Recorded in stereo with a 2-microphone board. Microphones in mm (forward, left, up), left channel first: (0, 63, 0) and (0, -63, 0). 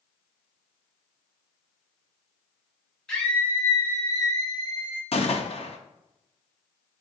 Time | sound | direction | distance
3.1 | a scream | 5° left (ahead or behind) | 1.3 m
5.1 | a gunshot | 55° left (ahead or behind) | 0.6 m